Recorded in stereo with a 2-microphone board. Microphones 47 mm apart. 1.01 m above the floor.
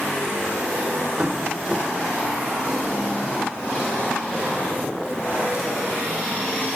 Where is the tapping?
20° right (ahead or behind), 4.5 m.